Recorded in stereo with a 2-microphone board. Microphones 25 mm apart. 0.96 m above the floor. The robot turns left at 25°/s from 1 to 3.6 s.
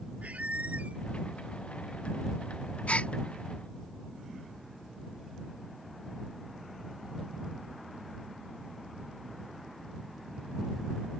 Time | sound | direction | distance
0.2 | a squeak | 80° right | ?
2.9 | a gasp | 75° left (ahead or behind) | ?